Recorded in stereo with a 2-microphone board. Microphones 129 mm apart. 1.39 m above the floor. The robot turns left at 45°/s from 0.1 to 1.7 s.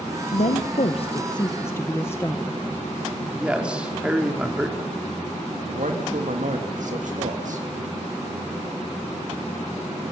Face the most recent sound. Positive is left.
turn(degrees=-75)  # may be behind; listen again after turning